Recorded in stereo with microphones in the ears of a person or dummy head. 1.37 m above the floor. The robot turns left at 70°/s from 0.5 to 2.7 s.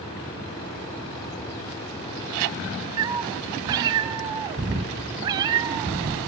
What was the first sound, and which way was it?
A cat meowing, 20° right (ahead or behind).